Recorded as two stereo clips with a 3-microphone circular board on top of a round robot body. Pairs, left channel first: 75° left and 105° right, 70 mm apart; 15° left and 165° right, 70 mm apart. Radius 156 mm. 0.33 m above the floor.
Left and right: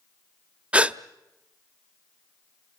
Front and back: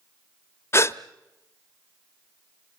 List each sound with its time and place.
0.7 s a gasp: 35° right, 1.1 m